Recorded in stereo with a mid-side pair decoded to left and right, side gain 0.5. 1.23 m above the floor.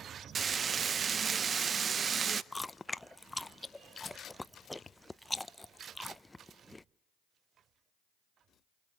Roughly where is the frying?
Ahead right.